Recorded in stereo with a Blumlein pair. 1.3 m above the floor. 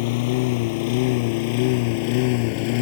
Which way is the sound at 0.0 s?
50° left.